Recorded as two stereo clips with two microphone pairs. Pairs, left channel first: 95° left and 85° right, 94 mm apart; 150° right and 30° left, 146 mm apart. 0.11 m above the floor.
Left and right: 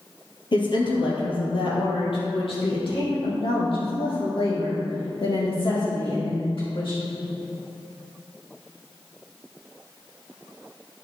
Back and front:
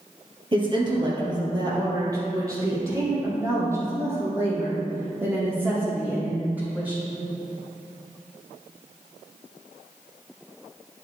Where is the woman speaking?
75° left, 2.5 m; by 7.0 s 105° left, 6 m.